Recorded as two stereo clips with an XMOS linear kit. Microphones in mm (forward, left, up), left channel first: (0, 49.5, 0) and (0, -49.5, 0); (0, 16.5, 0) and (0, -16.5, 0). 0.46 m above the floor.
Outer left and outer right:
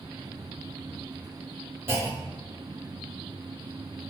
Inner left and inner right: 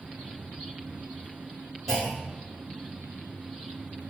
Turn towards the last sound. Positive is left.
turn(degrees=-25)  # may be behind; listen again after turning